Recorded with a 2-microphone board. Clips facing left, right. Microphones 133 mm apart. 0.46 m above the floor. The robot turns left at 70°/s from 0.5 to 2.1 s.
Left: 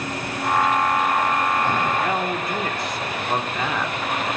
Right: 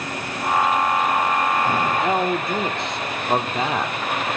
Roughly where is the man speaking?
Right.